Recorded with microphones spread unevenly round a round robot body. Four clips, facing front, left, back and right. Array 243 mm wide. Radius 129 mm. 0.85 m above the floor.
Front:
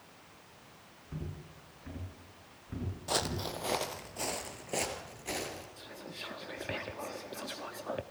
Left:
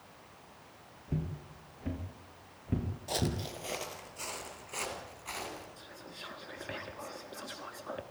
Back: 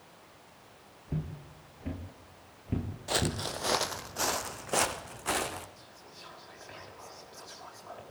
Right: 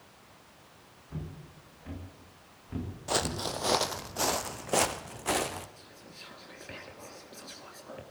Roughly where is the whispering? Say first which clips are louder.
Left 3 dB, front 6 dB; ahead.